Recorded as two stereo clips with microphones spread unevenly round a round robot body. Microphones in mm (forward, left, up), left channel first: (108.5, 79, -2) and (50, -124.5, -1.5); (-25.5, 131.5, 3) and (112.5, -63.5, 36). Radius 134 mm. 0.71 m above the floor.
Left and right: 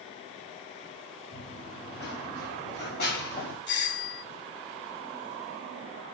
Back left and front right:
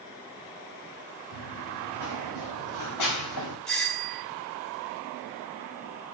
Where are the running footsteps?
135° left, 4 m.